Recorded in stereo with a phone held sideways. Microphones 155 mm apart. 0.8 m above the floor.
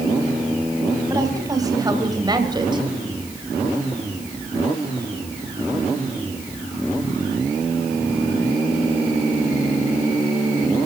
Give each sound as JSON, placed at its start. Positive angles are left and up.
{"t": 1.1, "sound": "a woman speaking", "side_deg": -20, "distance_m": 4.5}